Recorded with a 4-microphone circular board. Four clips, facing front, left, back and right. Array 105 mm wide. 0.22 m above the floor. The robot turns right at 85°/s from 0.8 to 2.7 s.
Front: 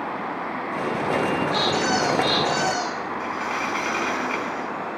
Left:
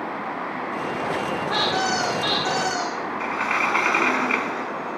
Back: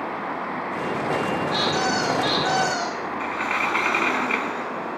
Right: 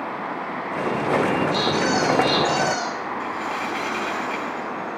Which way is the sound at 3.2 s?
110° left.